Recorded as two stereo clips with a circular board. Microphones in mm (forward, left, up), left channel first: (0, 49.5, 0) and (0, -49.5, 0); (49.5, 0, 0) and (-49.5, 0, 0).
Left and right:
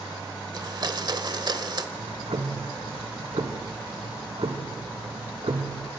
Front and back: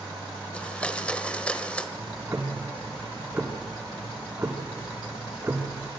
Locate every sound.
0.5 s a blender: 75° right, 1.2 m
1.9 s ticking: 115° right, 3 m